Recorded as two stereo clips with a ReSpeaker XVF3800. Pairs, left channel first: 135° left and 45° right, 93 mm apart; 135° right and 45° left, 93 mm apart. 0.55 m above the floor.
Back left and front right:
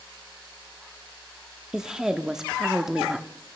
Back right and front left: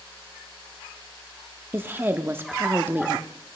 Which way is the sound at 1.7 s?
30° left.